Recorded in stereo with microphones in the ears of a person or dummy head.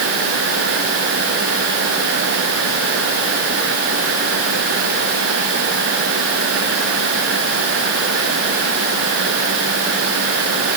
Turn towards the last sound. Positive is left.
No sound to turn to.